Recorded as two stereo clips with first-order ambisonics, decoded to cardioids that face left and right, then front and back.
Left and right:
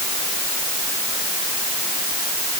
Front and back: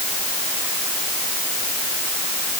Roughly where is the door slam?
I don't hear a door slam.